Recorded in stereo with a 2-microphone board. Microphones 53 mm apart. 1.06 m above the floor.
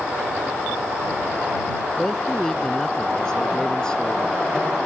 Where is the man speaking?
10° left (ahead or behind); by 4.4 s 15° left (ahead or behind).